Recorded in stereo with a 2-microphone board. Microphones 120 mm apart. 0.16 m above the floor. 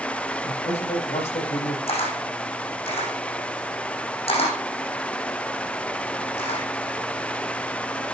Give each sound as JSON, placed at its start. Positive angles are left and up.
{"t": 0.4, "sound": "a man speaking", "side_deg": 65, "distance_m": 8.0}
{"t": 1.9, "sound": "a camera shutter", "side_deg": 60, "distance_m": 7.0}